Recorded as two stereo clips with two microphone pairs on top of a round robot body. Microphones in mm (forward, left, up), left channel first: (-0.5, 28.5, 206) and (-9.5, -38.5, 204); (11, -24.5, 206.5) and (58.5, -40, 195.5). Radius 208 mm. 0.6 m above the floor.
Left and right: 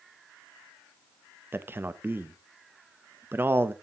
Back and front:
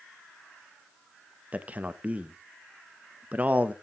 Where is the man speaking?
50° right, 0.9 m.